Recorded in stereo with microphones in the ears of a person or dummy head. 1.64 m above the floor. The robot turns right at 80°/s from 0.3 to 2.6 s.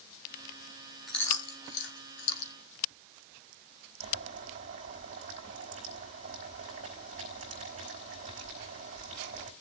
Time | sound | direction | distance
1.1 | chewing | centre (ahead or behind) | 3 m
4.0 | boiling | 40° right (ahead or behind) | 4 m